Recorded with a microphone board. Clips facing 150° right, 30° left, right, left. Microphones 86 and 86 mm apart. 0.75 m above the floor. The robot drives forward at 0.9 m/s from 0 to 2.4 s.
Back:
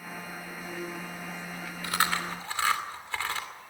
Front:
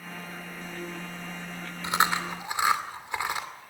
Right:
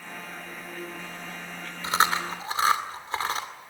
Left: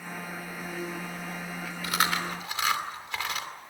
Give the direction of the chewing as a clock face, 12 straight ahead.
1 o'clock.